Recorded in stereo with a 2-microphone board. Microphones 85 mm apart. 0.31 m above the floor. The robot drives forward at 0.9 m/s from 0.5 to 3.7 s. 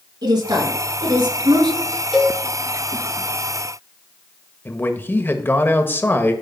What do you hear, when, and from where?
0.2 s a woman speaking: 50° right (ahead or behind), 4.5 m; by 1.8 s 60° right (ahead or behind), 4 m
2.1 s a cowbell: 5° left (ahead or behind), 3 m
4.7 s a man speaking: 25° left (ahead or behind), 1.2 m